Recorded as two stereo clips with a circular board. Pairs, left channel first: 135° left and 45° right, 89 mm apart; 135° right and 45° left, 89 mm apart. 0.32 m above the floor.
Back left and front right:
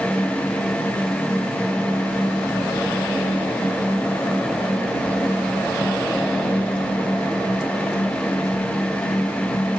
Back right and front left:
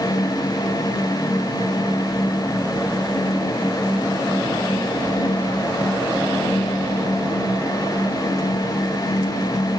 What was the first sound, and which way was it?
Only background noise.